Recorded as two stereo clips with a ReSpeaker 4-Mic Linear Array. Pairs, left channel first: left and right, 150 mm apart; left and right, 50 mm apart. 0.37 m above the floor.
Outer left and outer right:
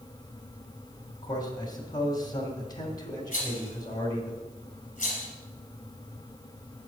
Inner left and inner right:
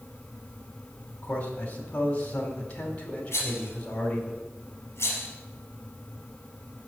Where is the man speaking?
25° left (ahead or behind), 2.5 m.